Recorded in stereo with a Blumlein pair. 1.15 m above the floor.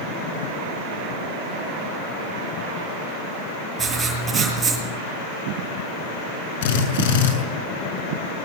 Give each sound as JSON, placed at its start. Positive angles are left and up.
{"t": 3.8, "sound": "writing", "azimuth_deg": -15, "distance_m": 8.0}
{"t": 6.6, "sound": "a drill", "azimuth_deg": 55, "distance_m": 6.5}